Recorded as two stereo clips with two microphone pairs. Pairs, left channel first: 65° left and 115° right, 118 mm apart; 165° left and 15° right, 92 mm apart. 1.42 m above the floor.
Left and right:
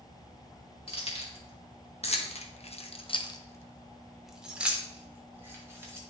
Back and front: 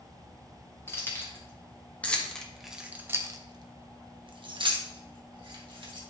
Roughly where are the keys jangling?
Left.